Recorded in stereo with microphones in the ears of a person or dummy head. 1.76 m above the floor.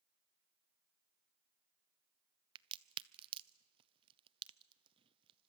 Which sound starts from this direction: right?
A crack, at 2.5 s.